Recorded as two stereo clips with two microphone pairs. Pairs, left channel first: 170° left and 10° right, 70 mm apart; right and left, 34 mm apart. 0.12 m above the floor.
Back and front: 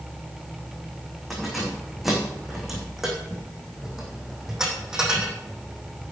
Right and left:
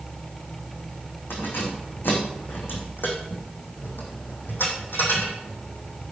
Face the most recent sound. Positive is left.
turn(degrees=-90)